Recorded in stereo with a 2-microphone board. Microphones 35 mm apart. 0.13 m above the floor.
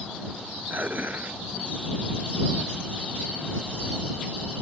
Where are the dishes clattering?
55° right (ahead or behind).